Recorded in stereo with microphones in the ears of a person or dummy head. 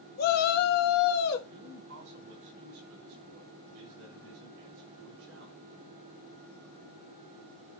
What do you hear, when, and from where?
0.2 s a shout: 45° left (ahead or behind), 0.6 m; by 1.4 s 50° left (ahead or behind), 1.4 m
1.5 s a man speaking: 85° right, 5 m